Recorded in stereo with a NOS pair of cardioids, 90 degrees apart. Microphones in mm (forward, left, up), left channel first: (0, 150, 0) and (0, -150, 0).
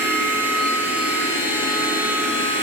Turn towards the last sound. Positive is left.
turn(degrees=-5)